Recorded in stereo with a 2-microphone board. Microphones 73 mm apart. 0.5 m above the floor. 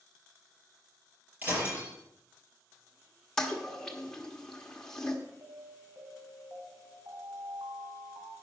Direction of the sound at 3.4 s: 10° left (ahead or behind).